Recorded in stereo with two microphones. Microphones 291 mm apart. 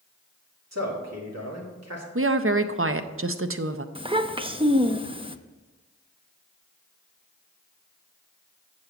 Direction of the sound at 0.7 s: 60° right (ahead or behind).